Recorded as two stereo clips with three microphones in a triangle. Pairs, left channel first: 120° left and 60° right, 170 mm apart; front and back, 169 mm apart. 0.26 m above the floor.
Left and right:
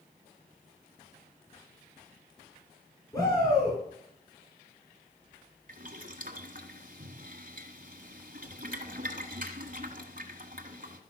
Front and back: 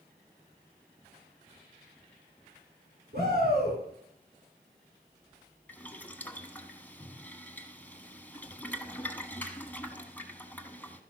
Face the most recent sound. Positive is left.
turn(degrees=-80)